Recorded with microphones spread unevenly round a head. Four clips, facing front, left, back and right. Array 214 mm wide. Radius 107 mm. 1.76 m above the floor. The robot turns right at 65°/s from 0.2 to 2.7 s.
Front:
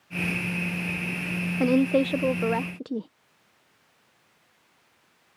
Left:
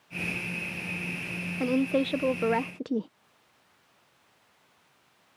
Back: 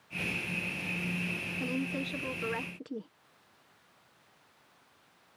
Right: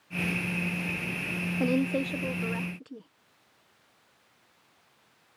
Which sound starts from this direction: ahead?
A woman speaking, at 1.6 s.